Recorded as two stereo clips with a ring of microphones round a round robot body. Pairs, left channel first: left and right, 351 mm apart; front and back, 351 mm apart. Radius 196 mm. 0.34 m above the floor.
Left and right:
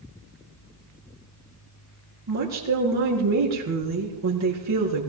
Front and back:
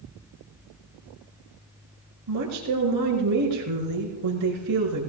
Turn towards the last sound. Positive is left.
turn(degrees=-130)